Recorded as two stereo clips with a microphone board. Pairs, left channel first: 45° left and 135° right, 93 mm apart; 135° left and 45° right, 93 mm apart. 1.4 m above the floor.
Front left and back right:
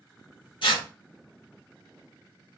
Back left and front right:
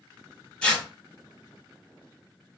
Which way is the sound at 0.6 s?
55° left.